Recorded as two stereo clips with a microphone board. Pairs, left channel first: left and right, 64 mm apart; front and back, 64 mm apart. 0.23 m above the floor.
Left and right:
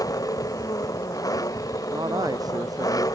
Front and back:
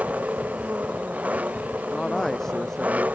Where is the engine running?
110° left.